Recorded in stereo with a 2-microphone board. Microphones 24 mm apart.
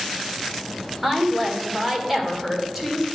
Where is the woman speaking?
15° right (ahead or behind), 1.7 m.